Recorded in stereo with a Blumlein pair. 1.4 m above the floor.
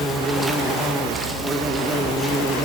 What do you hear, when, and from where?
0.0 s an insect: straight ahead, 1.7 m